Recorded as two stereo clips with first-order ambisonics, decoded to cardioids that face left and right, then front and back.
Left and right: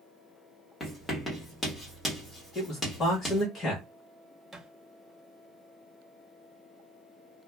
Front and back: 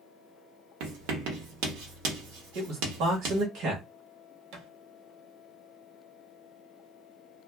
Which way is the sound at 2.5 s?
160° left.